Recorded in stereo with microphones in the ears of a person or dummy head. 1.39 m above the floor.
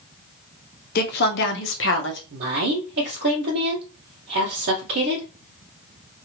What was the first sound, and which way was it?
A woman speaking, 55° left (ahead or behind).